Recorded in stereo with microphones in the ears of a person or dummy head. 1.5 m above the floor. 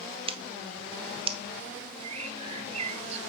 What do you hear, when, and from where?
0.3 s scissors: 25° right (ahead or behind), 0.8 m
2.0 s a bird: 40° right (ahead or behind), 1.4 m